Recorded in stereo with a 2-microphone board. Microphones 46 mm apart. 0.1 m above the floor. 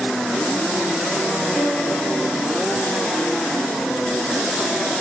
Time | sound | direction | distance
1.5 | a violin | 10° left (ahead or behind) | 1.5 m